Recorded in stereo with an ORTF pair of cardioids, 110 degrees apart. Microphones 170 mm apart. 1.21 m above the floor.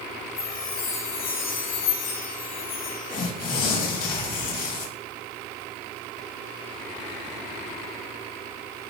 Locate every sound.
0.4 s a chime: 65° left, 3.5 m
3.1 s tearing paper: 55° left, 2 m